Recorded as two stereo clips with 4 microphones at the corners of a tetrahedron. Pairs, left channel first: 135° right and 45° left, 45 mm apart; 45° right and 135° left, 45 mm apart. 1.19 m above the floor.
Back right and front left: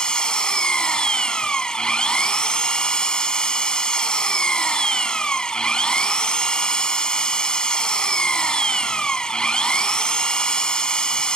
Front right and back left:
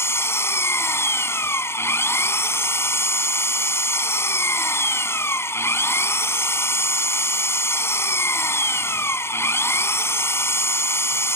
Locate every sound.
0.0 s an engine running: 65° right